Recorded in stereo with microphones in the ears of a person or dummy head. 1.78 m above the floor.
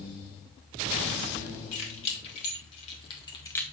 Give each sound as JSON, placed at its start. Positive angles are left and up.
{"t": 1.7, "sound": "keys jangling", "side_deg": 40, "distance_m": 3.0}